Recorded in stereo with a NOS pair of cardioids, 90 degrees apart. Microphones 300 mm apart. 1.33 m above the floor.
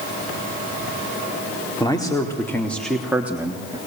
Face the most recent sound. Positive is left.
turn(degrees=-15)